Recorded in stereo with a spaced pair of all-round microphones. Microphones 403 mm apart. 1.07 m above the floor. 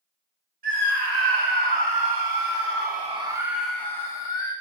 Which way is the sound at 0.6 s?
65° right (ahead or behind).